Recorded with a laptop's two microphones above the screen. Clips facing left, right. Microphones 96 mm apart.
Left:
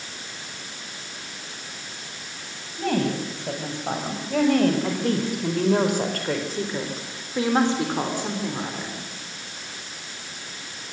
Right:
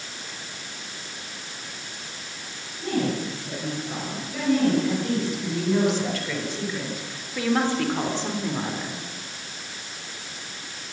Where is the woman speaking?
80° left, 7.5 m; by 9.1 s 5° right (ahead or behind), 4 m.